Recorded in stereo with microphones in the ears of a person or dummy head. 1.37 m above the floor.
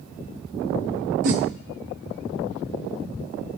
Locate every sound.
1.2 s a whoosh: 45° right (ahead or behind), 1.1 m